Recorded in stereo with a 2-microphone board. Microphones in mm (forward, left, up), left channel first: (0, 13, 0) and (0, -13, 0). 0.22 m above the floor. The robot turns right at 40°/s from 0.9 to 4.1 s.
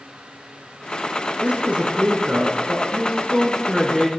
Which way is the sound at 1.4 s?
105° right.